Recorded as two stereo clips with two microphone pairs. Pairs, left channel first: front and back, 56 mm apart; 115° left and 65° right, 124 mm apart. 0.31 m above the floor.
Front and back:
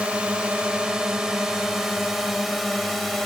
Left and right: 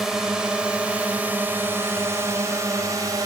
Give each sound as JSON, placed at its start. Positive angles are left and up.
{"t": 0.0, "sound": "a drone", "azimuth_deg": -145}